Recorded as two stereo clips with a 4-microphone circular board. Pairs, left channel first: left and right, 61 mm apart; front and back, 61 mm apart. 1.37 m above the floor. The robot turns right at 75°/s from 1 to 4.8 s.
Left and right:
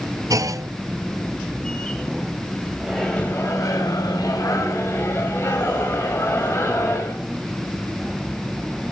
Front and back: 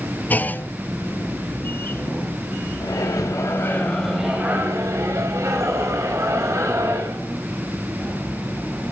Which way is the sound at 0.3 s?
60° right.